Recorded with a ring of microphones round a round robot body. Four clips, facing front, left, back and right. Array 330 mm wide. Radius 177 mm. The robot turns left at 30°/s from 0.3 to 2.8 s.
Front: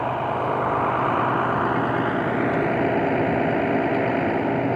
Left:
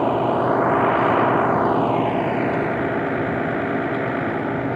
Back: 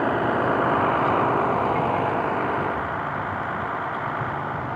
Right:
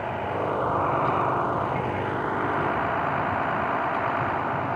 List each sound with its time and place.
0.0 s a vehicle: 115° left; by 4.8 s 40° left